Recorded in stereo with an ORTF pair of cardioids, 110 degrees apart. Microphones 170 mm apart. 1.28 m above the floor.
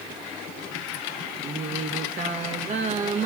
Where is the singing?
45° right, 1.6 m.